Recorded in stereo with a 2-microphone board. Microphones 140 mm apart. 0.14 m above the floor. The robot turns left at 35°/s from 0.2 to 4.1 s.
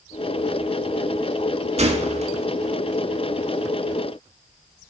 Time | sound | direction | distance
1.8 | a gunshot | 50° right (ahead or behind) | 0.5 m